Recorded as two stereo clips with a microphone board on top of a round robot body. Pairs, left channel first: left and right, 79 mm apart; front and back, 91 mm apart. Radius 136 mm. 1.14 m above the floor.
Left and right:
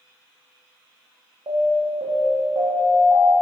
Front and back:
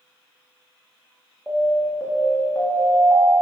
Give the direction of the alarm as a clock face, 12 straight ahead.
3 o'clock.